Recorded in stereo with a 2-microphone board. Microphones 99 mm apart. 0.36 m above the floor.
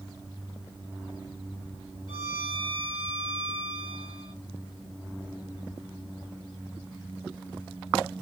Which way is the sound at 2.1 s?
55° right (ahead or behind).